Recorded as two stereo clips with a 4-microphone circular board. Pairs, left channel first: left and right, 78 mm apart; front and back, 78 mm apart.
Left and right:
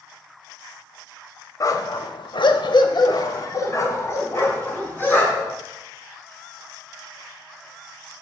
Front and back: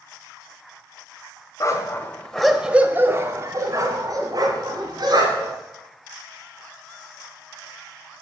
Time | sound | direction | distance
1.6 | a dog barking | 45° left | 0.8 m